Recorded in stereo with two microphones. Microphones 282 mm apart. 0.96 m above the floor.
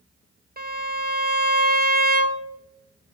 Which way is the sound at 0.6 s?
35° right (ahead or behind).